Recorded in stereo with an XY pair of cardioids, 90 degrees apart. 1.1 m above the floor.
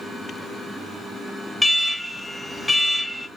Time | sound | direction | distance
1.6 | an alarm | 10° left | 0.6 m